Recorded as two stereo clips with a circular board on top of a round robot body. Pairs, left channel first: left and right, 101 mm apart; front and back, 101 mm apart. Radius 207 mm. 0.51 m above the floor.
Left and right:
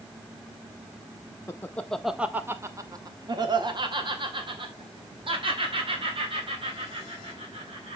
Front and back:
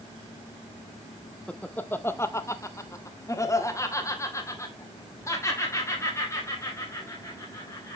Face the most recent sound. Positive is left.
turn(degrees=-65)